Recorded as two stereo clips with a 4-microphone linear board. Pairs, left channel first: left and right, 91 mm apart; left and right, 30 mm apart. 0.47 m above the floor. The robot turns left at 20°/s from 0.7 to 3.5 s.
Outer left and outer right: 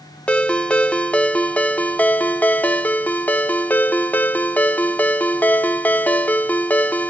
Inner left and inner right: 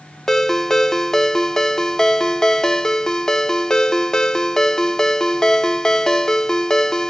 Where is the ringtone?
15° left (ahead or behind), 0.5 m; by 7.1 s 20° left (ahead or behind), 0.5 m.